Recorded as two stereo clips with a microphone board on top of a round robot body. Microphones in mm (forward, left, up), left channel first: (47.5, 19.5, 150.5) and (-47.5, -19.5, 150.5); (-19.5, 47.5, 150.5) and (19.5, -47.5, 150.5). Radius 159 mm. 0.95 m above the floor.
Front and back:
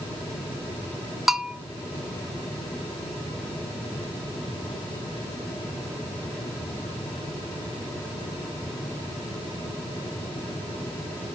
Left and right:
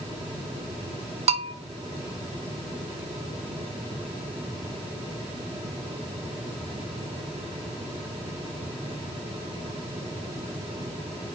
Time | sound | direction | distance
1.3 | a bell | 70° right | 0.7 m